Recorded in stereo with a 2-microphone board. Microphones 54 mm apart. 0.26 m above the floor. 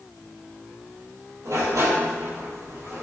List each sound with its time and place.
1.4 s a sliding door: 80° right, 1.2 m